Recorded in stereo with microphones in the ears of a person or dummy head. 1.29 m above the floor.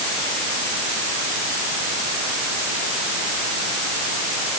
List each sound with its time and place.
Only background noise.